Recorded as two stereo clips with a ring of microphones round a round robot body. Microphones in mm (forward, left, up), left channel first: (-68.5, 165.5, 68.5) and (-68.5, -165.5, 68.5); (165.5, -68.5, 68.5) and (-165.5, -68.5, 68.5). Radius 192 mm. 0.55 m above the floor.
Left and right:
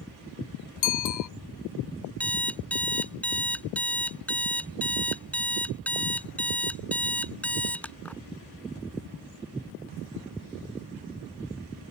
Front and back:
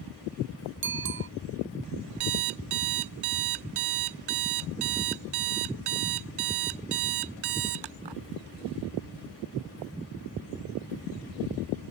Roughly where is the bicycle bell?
Behind left.